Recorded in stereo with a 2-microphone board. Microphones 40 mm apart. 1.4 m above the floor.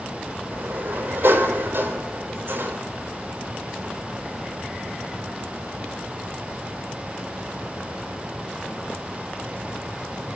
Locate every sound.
0.5 s a sliding door: 65° right (ahead or behind), 3.5 m